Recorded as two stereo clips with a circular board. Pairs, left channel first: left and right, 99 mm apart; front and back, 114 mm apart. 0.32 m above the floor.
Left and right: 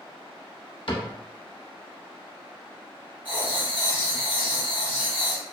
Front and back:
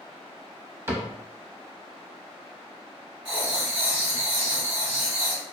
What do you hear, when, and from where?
0.9 s a cupboard door: 115° left, 0.6 m
3.2 s writing: 105° right, 1.6 m